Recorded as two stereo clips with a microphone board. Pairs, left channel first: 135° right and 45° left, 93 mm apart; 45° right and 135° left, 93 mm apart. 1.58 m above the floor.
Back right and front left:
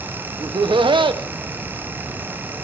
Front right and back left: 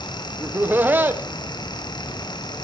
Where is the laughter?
65° left, 0.8 m.